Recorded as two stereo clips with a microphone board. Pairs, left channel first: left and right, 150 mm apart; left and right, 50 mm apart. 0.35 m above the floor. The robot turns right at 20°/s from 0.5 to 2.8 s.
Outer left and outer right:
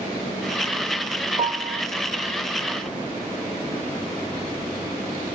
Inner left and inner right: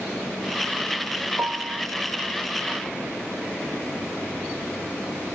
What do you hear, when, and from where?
1.4 s a piano: 35° right (ahead or behind), 0.6 m; by 1.9 s 40° right (ahead or behind), 0.6 m